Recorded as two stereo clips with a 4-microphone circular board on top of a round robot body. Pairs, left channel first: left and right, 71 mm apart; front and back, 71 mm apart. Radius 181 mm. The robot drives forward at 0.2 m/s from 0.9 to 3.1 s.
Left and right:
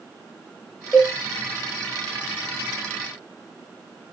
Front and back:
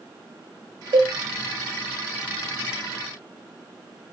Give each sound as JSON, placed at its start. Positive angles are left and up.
{"t": 0.9, "sound": "a cowbell", "azimuth_deg": 170, "distance_m": 0.8}